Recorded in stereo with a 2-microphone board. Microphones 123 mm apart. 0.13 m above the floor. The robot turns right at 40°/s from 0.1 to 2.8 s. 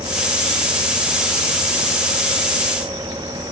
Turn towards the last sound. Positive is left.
No sound to turn to.